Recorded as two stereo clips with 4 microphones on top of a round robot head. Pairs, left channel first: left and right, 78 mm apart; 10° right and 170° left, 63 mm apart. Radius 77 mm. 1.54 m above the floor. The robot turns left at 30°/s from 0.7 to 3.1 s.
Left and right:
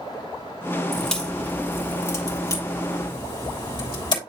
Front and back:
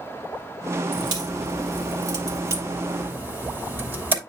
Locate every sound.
0.9 s a crack: straight behind, 3 m; by 4.2 s 115° left, 3 m